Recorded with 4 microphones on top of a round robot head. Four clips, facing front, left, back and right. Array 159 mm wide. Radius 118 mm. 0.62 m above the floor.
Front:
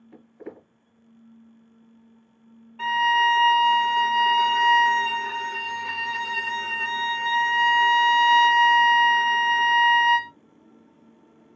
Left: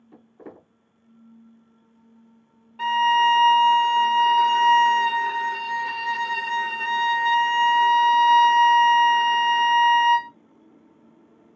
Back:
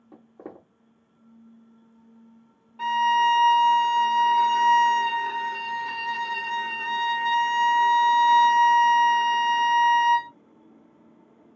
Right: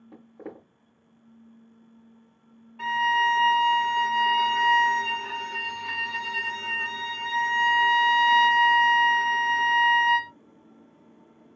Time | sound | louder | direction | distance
0.1 | footsteps | right 2 dB, front 1 dB | 150° right | 1.4 m
2.8 | a violin | left 5 dB, even | 90° left | 1.2 m